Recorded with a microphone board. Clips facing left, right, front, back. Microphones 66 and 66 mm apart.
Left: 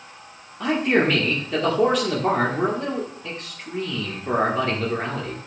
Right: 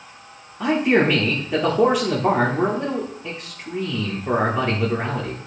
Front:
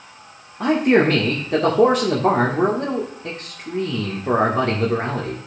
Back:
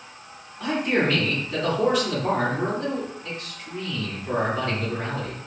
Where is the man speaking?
10° right, 1.3 m.